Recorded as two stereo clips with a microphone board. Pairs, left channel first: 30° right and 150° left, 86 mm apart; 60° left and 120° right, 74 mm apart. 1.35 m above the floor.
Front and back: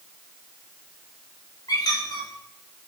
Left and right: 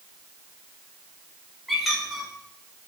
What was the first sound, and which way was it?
A squeak, 30° right.